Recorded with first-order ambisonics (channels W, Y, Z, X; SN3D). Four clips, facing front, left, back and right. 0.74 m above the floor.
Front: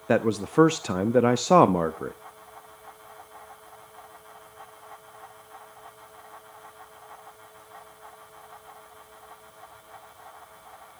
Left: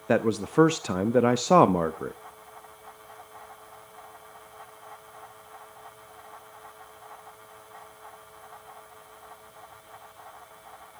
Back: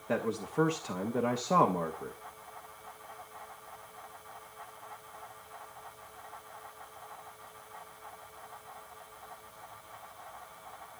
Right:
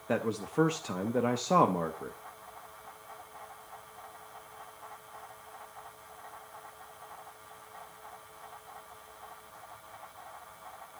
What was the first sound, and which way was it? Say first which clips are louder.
A man speaking: left 8 dB, front 9 dB; 40° left.